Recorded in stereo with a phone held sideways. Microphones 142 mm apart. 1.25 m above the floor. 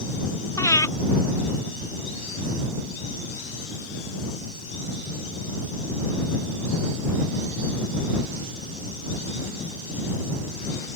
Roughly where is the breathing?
Left.